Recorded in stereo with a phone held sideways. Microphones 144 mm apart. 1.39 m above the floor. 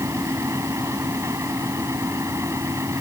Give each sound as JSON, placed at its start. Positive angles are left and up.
{"t": 0.0, "sound": "a fan", "side_deg": -20}